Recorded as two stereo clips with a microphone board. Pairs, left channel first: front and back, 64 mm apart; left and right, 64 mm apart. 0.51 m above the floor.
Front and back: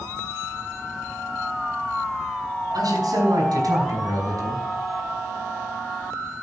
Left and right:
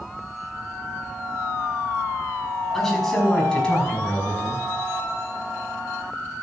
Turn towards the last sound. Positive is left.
turn(degrees=155)